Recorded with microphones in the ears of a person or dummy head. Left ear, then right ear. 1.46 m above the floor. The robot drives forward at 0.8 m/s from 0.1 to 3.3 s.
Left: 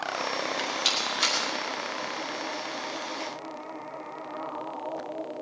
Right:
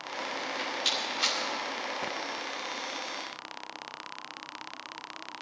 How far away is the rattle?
About 1.9 m.